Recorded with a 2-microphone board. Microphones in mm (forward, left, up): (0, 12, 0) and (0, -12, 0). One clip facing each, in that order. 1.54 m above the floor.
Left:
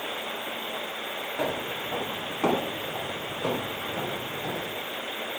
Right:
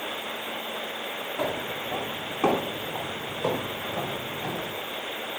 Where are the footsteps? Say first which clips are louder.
Even; 5° left (ahead or behind), 4 m; by 4.7 s 25° right (ahead or behind), 3 m.